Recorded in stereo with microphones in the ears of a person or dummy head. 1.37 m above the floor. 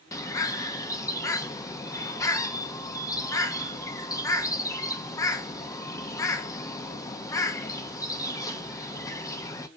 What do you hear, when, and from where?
0.1 s a bird: 25° left (ahead or behind), 0.6 m